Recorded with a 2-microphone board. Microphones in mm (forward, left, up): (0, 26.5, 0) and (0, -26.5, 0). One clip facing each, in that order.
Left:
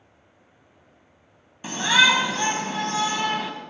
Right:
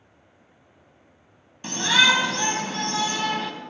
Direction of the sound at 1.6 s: 10° left (ahead or behind).